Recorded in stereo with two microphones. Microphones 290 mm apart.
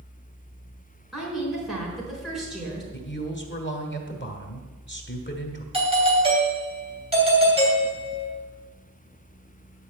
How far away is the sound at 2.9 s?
About 1.7 m.